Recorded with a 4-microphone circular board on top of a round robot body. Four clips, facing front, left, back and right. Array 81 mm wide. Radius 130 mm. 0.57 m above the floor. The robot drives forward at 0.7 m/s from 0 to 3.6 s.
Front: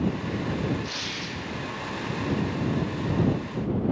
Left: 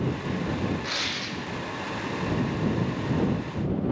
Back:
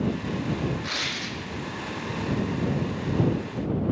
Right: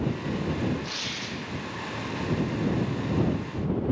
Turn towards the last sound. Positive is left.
turn(degrees=170)